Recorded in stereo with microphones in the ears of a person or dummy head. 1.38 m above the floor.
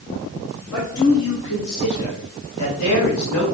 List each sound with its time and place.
0.7 s a man speaking: 75° left (ahead or behind), 4 m; by 3.4 s 85° left, 6 m